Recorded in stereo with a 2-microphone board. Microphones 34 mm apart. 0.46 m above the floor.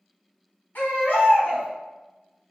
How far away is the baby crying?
About 1.1 m.